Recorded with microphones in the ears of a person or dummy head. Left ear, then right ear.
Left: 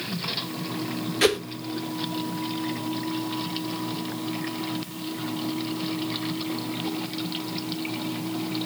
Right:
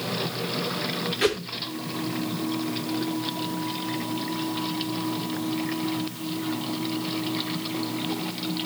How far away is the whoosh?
About 0.6 m.